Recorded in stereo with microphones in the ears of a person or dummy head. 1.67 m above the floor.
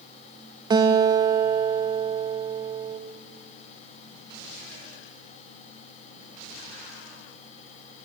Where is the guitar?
25° right (ahead or behind), 1.6 m.